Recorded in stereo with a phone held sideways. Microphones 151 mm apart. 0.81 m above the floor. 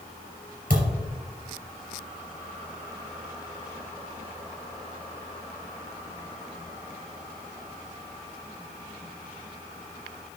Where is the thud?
60° right (ahead or behind), 3 m.